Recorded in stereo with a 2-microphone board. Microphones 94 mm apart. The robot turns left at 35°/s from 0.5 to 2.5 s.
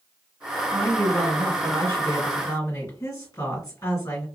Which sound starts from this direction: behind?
A woman speaking, at 0.7 s.